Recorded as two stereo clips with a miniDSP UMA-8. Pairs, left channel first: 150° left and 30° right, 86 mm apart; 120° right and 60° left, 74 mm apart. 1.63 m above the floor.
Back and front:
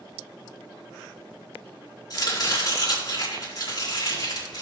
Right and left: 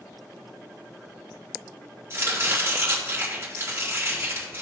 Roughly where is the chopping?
Behind left.